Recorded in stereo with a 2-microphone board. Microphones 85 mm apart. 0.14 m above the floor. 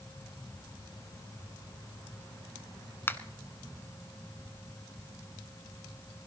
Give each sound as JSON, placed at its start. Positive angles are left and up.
{"t": 3.1, "sound": "a finger snap", "side_deg": 25, "distance_m": 1.1}